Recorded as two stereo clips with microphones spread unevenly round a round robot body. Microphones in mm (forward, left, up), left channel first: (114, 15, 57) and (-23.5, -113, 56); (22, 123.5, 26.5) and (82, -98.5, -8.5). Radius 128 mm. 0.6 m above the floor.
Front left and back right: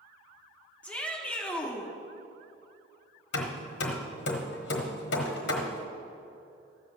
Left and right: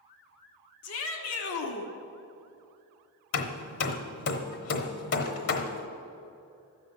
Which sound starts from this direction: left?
Hammering, at 3.3 s.